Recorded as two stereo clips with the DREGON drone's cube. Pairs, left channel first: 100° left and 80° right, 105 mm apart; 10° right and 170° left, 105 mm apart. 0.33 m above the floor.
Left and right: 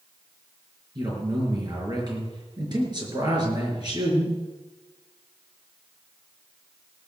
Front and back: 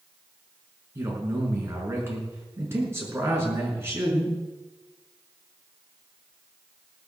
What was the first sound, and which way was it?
A man speaking, 125° right.